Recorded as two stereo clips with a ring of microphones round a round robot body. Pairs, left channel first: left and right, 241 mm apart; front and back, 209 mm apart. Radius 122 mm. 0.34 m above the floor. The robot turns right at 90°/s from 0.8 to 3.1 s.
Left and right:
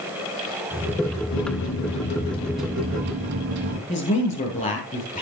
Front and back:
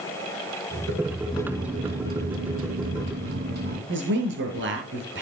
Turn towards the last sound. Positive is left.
turn(degrees=150)